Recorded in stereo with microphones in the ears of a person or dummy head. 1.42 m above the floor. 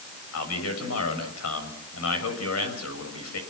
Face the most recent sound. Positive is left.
turn(degrees=90)